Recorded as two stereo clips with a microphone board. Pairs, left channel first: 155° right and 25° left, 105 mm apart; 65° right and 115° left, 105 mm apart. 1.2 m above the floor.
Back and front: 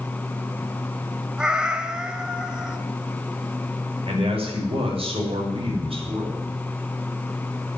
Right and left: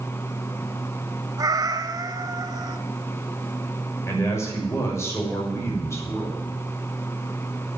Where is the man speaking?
5° right, 6 m.